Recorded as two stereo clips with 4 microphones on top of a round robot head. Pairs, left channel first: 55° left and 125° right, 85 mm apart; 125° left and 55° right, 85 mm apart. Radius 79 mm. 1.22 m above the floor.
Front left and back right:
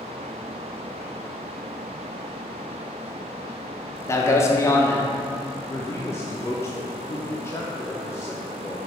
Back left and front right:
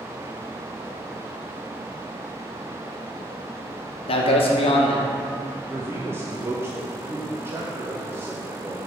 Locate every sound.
4.1 s a man speaking: 115° left, 1.0 m
5.7 s a man speaking: straight ahead, 0.7 m